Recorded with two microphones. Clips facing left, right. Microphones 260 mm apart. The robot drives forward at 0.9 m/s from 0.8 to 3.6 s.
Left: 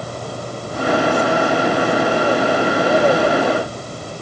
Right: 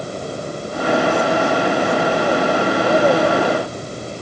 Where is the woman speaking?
No woman speaking in this recording.